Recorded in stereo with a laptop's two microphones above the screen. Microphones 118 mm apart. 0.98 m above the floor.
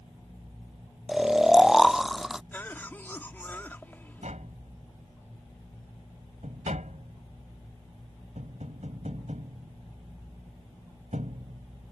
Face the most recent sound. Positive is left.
turn(degrees=-85)